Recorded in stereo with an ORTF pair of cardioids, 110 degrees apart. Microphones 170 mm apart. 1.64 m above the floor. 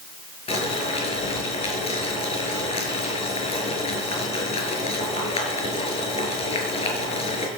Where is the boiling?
35° left, 5.5 m.